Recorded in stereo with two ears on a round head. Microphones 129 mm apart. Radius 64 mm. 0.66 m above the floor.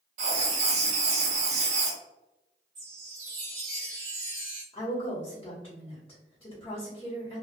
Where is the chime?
50° right (ahead or behind), 1.0 m.